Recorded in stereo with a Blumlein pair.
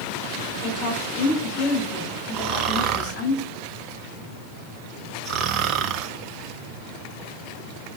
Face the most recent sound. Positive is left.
turn(degrees=-35)